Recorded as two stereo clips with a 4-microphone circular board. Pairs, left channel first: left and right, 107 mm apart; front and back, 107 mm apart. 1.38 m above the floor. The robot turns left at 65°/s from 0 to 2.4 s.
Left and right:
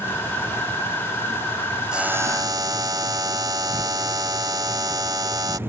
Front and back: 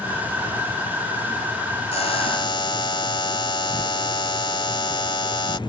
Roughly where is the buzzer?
Ahead.